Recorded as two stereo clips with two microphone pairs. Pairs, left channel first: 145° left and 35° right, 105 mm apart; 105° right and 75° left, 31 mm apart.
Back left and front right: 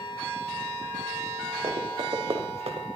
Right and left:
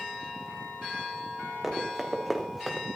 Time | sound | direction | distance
1.6 | running footsteps | 5° right | 3.5 m